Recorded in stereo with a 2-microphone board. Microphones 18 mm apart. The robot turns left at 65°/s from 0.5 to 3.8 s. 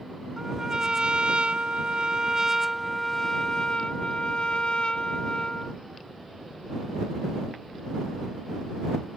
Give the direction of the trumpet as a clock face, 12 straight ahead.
1 o'clock.